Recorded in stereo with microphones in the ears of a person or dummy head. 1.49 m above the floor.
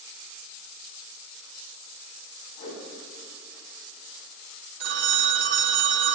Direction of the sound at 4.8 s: 65° right (ahead or behind).